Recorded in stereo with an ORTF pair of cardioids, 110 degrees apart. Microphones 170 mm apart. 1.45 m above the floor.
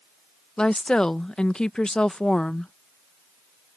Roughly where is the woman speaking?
Ahead.